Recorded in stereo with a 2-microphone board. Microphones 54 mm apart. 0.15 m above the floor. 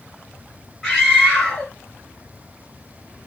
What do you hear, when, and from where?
0.8 s a scream: 10° left (ahead or behind), 2 m